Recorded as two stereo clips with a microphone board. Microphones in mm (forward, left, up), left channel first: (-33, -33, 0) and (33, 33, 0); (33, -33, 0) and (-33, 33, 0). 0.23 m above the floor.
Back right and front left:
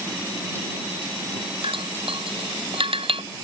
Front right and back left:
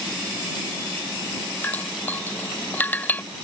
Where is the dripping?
25° left.